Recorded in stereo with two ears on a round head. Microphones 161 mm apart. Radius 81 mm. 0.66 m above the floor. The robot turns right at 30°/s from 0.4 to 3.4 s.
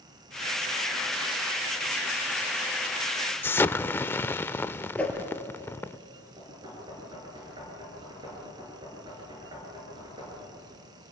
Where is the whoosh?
10° left (ahead or behind), 3.5 m.